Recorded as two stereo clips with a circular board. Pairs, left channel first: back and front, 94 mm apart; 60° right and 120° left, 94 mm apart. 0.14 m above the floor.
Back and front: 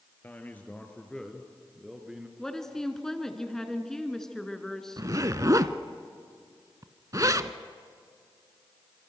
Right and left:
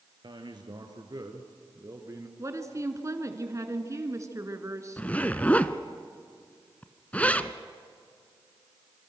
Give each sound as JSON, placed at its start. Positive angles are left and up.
{"t": 0.2, "sound": "a man speaking", "azimuth_deg": 115, "distance_m": 3.0}
{"t": 2.4, "sound": "a woman speaking", "azimuth_deg": 100, "distance_m": 2.0}
{"t": 5.0, "sound": "a zipper", "azimuth_deg": 5, "distance_m": 0.8}